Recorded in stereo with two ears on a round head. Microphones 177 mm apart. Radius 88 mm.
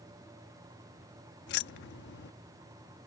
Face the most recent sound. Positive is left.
turn(degrees=60)  # may be behind; listen again after turning